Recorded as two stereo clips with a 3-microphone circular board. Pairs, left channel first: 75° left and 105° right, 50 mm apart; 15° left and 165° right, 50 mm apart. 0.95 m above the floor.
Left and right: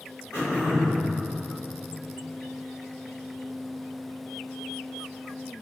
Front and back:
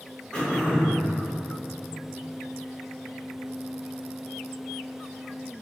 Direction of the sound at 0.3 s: 80° left.